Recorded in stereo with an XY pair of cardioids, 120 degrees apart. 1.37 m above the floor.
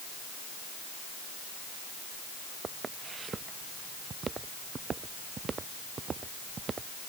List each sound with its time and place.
2.6 s footsteps: 35° right